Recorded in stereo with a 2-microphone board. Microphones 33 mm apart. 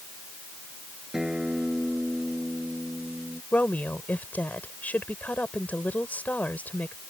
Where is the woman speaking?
60° left (ahead or behind).